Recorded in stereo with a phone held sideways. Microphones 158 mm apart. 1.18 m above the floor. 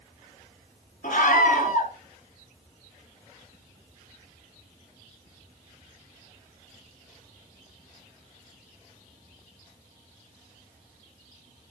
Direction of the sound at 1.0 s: 60° left (ahead or behind).